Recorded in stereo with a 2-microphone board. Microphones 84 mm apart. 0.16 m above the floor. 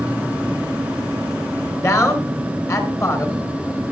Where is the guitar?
No guitar in this recording.